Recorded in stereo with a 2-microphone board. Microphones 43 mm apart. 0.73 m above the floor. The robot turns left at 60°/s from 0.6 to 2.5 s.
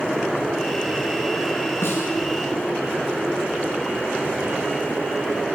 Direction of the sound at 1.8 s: 85° left.